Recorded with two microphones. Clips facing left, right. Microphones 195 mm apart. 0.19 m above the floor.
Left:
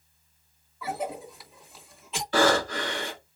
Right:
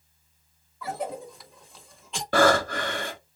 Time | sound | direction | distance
0.8 | a cough | 5° left (ahead or behind) | 1.1 m
2.3 | breathing | 60° right (ahead or behind) | 2 m